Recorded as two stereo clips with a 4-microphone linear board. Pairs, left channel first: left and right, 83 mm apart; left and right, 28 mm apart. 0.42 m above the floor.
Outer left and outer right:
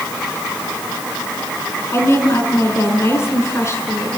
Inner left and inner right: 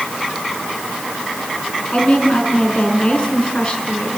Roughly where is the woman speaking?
Left.